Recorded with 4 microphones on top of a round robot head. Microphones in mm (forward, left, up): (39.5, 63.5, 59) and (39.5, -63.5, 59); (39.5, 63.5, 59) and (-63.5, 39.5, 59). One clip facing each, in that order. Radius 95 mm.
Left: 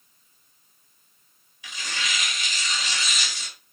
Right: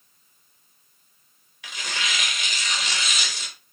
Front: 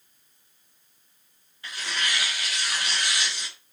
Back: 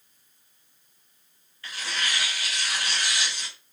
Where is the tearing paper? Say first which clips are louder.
Right 2 dB, front 1 dB; 60° right, 3.5 m.